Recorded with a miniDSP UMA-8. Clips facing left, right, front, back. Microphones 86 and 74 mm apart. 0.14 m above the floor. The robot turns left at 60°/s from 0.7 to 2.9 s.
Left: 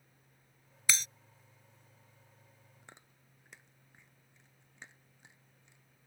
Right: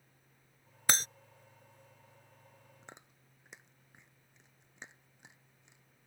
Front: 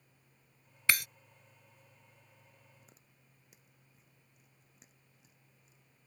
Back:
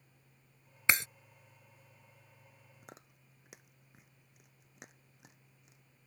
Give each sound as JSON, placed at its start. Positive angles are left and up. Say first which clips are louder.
{"t": 0.9, "sound": "breaking glass", "louder": "right 3 dB, back 1 dB", "azimuth_deg": -115}
{"t": 2.8, "sound": "chewing", "louder": "right 3 dB, back 9 dB", "azimuth_deg": -155}